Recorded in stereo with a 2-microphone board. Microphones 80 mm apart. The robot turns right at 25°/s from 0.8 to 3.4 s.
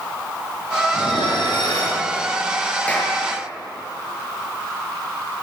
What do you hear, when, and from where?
0.9 s dishes clattering: 85° left, 7 m; by 2.0 s 60° left (ahead or behind), 7 m
2.9 s a clap: 15° left (ahead or behind), 7.5 m; by 3.1 s 25° left (ahead or behind), 7.5 m